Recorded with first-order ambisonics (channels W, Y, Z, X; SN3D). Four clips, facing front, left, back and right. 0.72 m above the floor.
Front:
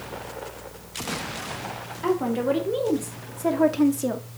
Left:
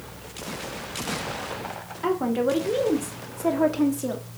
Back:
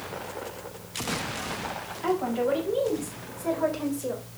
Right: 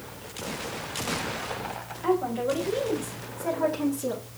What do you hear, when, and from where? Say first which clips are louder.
2.0 s a woman speaking: left 2 dB, front 2 dB; 60° left, 2.5 m; by 4.2 s 10° left, 1.3 m